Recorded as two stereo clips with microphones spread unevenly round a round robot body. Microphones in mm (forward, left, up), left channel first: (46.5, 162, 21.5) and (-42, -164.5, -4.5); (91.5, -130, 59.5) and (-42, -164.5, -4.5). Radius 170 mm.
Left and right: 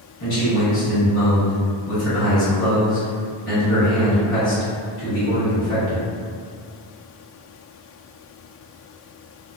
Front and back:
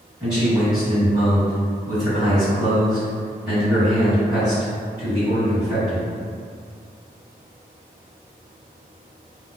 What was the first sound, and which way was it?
A man speaking, 125° left.